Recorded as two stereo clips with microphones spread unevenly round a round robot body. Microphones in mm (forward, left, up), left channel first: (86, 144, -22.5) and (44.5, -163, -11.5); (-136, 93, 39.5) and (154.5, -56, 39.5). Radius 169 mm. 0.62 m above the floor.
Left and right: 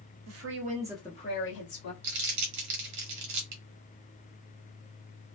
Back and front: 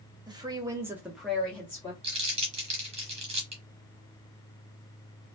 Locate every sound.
0.3 s a woman speaking: 100° right, 0.9 m; by 1.9 s 70° left, 1.2 m
2.0 s crumpling: 95° right, 1.3 m